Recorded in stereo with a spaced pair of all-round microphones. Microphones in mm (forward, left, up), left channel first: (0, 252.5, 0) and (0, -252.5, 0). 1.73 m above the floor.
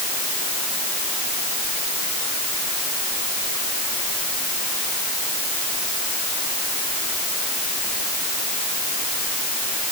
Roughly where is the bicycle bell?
I don't hear a bicycle bell.